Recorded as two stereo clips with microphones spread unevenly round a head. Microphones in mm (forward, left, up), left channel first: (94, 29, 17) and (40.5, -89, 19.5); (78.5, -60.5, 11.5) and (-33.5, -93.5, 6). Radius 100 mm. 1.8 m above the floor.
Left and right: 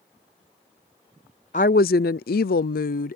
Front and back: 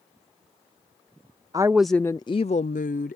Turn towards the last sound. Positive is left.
turn(degrees=60)